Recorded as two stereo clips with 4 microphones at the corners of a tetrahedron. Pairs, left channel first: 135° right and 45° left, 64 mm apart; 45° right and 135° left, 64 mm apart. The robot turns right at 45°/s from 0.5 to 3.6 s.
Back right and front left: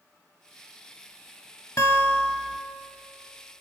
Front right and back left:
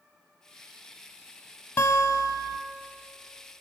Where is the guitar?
100° right, 1.6 m; by 2.6 s 65° right, 1.6 m.